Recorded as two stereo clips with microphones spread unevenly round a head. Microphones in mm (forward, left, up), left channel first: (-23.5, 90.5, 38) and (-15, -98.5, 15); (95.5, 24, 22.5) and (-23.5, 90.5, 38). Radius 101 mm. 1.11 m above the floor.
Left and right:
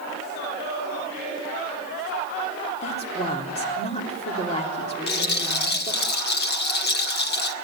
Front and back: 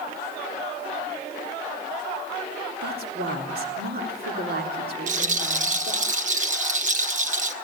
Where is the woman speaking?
155° left, 4 m.